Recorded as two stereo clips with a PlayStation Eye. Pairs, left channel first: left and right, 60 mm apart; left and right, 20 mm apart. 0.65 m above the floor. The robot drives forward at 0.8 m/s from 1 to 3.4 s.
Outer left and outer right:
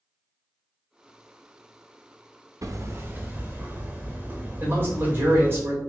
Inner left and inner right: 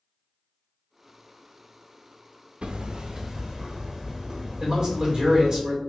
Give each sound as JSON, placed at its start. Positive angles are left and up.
{"t": 2.6, "sound": "hammering", "side_deg": -65, "distance_m": 0.5}
{"t": 4.6, "sound": "a man speaking", "side_deg": -40, "distance_m": 2.5}